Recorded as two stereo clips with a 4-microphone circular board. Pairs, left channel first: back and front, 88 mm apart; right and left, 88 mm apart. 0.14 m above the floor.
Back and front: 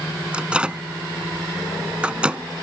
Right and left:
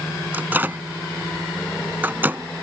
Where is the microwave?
60° left.